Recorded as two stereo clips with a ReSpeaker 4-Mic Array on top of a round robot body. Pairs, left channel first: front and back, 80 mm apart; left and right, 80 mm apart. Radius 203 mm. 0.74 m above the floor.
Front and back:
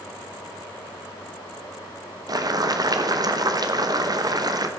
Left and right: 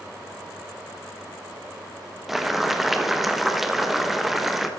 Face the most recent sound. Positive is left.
turn(degrees=-175)